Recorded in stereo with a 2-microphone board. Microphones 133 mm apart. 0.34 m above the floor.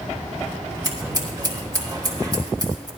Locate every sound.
0.8 s scissors: 30° right (ahead or behind), 2 m